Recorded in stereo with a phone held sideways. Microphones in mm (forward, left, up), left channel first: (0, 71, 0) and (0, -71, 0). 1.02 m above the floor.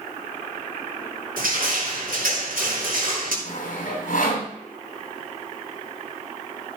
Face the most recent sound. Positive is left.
turn(degrees=70)  # may be behind; listen again after turning